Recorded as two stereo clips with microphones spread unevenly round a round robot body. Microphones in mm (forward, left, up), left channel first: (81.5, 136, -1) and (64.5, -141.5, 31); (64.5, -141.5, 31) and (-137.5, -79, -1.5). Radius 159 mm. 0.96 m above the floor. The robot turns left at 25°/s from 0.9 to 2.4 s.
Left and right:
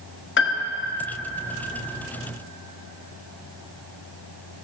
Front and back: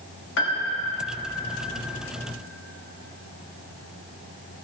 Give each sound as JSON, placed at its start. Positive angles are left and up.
{"t": 0.4, "sound": "a piano", "azimuth_deg": 40, "distance_m": 1.1}